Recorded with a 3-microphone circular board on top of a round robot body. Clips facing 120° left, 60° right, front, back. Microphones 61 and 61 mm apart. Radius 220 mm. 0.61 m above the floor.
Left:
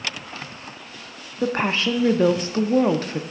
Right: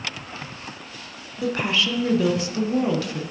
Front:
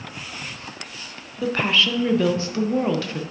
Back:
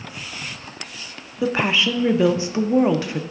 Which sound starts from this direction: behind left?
A woman speaking, at 1.4 s.